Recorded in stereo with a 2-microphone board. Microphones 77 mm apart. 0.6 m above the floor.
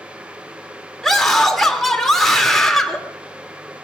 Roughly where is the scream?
Centre.